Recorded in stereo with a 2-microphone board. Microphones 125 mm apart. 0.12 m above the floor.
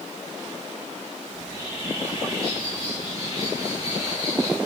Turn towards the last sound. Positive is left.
turn(degrees=-25)  # may be behind; listen again after turning